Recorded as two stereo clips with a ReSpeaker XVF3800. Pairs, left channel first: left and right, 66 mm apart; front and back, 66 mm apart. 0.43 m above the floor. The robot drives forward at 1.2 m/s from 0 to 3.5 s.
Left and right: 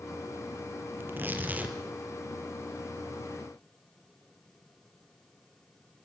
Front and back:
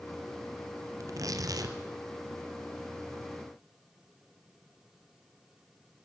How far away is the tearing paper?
About 1.9 m.